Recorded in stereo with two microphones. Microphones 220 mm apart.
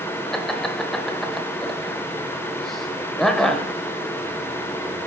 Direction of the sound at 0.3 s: Centre (ahead or behind).